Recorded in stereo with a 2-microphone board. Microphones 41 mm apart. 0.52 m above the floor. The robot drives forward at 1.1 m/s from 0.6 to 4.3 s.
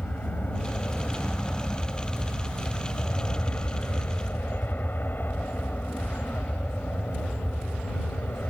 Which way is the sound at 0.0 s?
50° left (ahead or behind).